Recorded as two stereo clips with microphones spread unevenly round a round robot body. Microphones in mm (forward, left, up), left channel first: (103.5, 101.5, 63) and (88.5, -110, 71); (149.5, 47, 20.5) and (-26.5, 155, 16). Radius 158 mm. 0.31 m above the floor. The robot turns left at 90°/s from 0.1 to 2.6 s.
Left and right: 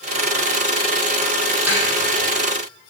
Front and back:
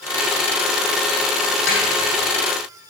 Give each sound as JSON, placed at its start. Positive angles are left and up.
{"t": 1.7, "sound": "a snare drum", "azimuth_deg": -10, "distance_m": 7.0}